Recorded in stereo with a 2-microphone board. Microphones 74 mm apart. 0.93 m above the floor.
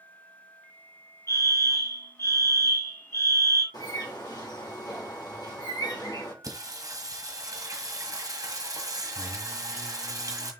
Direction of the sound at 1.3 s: 40° left (ahead or behind).